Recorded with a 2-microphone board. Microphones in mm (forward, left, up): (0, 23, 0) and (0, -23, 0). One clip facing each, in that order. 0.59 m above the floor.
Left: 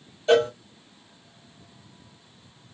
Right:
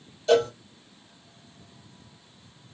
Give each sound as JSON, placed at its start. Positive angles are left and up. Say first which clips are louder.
{"t": 0.3, "sound": "a cowbell", "louder": "left 1 dB", "side_deg": 25, "distance_m": 1.0}